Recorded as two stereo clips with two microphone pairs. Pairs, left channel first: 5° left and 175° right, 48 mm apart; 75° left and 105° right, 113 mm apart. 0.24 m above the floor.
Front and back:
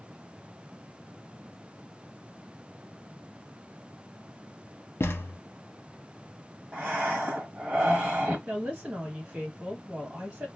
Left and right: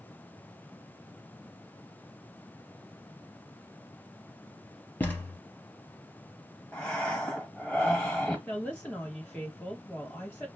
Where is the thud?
10° left, 0.8 m.